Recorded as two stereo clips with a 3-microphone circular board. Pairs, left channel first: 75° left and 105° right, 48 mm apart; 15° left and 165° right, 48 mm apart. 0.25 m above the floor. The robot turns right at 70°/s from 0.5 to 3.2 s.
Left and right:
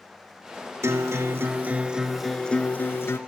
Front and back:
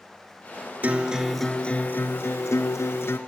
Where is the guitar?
110° right, 0.8 m; by 3.2 s 55° left, 0.8 m.